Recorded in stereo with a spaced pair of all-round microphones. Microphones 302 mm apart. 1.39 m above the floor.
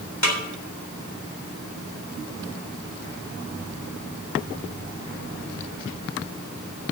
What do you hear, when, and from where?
0.2 s a snare drum: 60° left (ahead or behind), 3.5 m